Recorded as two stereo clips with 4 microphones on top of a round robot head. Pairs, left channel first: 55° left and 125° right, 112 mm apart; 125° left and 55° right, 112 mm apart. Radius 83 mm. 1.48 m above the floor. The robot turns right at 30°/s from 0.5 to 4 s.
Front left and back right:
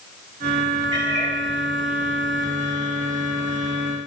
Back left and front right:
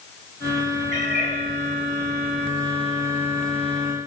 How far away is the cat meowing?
About 2 m.